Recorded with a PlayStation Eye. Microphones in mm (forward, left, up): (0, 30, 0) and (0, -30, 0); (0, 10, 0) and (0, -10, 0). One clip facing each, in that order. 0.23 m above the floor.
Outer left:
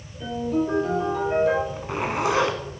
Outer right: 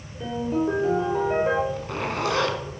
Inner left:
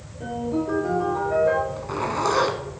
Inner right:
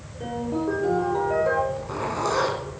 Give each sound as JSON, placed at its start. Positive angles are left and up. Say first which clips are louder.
{"t": 0.2, "sound": "a ringtone", "louder": "even, inner left 1 dB", "side_deg": -25, "distance_m": 5.5}
{"t": 1.7, "sound": "a zipper", "louder": "outer left 1 dB, inner left 1 dB", "side_deg": 20, "distance_m": 1.3}